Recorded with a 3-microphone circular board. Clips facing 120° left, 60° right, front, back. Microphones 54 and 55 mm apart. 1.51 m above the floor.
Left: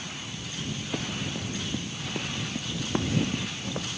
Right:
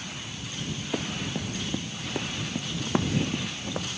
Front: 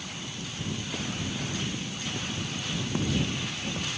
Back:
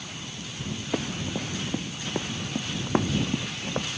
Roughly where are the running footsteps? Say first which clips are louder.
Right 2 dB, back 7 dB; behind right.